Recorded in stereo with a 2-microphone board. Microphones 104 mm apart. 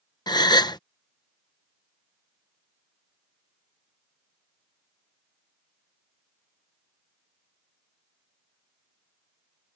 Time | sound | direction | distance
0.3 | a gasp | 40° left (ahead or behind) | ?